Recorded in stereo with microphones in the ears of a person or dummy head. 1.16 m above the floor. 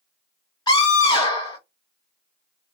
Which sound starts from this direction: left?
A scream, at 0.7 s.